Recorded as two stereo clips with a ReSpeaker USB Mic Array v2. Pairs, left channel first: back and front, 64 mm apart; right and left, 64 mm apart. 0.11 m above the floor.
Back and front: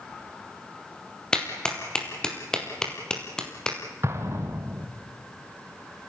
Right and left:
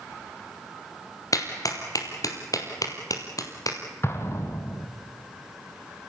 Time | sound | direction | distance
1.3 | a clap | 100° right | 2 m
4.0 | an explosion | 45° right | 2 m